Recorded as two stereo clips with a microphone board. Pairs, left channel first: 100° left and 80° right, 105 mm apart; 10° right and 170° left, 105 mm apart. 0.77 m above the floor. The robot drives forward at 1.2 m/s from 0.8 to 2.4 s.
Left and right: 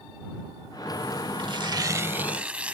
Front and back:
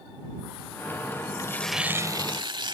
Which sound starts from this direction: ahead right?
Tearing paper, at 1.4 s.